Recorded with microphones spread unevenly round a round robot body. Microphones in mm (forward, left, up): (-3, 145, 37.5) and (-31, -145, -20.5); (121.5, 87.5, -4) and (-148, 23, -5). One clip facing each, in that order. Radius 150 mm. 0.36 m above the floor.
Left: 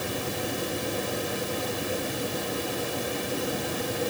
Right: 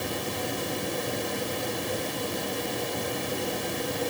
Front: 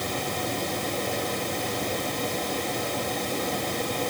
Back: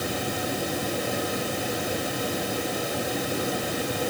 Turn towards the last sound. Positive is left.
No sound to turn to.